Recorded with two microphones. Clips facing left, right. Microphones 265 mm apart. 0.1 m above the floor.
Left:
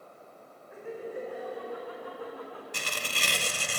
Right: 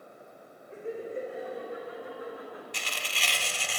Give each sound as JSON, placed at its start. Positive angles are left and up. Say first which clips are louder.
{"t": 0.7, "sound": "laughter", "louder": "right 2 dB", "side_deg": -30, "distance_m": 8.0}
{"t": 2.7, "sound": "tearing paper", "louder": "left 3 dB", "side_deg": 50, "distance_m": 1.1}